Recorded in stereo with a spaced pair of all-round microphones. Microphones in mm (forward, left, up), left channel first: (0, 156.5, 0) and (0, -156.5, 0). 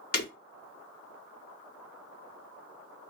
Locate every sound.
0.1 s breaking glass: 50° left (ahead or behind), 1.4 m